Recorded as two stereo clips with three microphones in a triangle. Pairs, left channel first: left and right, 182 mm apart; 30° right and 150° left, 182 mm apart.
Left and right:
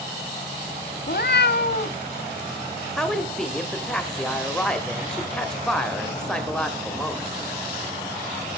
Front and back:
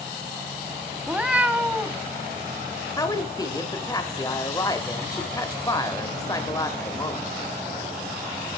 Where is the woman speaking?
10° left, 1.1 m.